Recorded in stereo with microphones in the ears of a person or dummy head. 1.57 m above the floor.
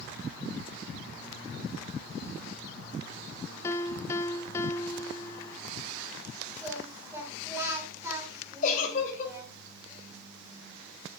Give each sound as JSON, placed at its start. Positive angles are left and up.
{"t": 3.6, "sound": "a piano", "side_deg": 10, "distance_m": 0.6}
{"t": 6.6, "sound": "singing", "side_deg": -10, "distance_m": 2.5}
{"t": 8.6, "sound": "a giggle", "side_deg": 40, "distance_m": 3.0}